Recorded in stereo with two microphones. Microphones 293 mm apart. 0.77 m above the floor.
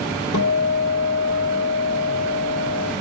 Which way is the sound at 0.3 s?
80° left.